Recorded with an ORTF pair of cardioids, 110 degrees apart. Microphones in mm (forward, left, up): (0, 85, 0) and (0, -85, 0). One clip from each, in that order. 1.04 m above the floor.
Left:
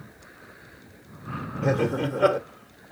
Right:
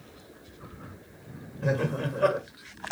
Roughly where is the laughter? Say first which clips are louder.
Left 4 dB; ahead left.